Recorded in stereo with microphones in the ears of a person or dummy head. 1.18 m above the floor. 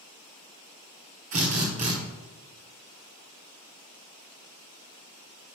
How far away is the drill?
About 1.1 m.